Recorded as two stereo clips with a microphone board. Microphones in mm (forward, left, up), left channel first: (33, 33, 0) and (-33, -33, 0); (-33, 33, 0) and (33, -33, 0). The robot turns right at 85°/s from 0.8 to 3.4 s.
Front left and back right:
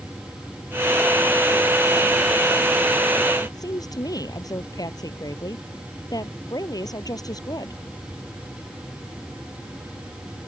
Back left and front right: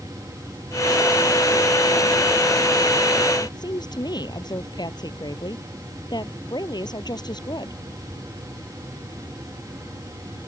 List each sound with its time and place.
3.4 s a woman speaking: 95° left